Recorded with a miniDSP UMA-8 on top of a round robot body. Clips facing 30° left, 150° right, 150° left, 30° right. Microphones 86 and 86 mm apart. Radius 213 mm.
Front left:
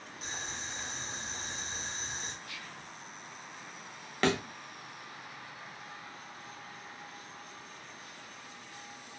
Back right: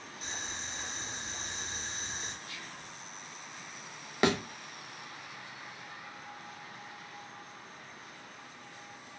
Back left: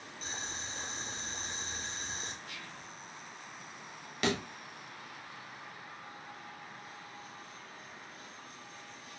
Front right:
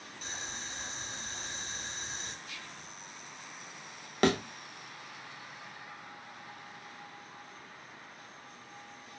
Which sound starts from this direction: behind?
Whispering, at 2.4 s.